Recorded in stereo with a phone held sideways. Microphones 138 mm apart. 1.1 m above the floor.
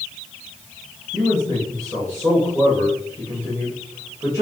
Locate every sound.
1.1 s a man speaking: 20° right (ahead or behind), 1.4 m